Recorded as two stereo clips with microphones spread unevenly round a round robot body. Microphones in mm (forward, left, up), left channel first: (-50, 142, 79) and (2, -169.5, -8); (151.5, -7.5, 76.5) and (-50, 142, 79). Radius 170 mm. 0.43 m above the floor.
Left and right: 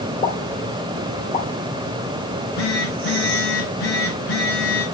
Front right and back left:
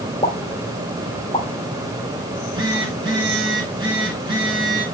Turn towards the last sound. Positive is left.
turn(degrees=70)